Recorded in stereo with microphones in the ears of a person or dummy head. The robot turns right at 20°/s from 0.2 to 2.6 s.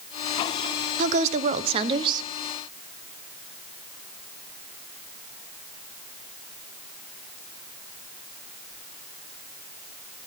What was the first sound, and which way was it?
A woman speaking, 45° right (ahead or behind).